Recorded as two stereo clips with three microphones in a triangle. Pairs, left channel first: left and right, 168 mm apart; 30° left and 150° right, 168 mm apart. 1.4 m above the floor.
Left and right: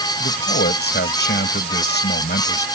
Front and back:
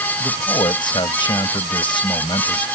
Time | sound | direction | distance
0.2 | a man speaking | 90° left | ?